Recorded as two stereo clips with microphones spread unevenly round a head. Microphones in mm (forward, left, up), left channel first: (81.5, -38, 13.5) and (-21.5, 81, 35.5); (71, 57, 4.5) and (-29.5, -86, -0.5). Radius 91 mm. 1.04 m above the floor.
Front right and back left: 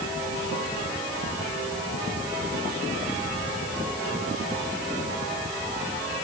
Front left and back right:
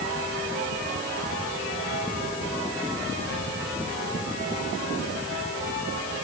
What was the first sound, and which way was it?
Only background noise.